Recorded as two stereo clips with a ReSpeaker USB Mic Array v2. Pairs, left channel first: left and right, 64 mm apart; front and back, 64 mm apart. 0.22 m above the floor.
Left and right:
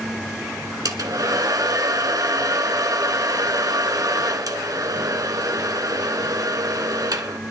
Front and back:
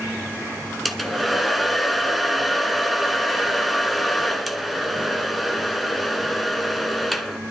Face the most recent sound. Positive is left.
turn(degrees=-90)